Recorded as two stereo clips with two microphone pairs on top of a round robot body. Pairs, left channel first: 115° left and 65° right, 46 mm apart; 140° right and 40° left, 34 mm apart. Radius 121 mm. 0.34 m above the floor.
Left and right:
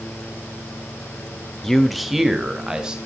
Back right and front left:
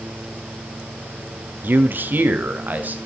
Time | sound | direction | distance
1.6 | a man speaking | 40° left | 1.4 m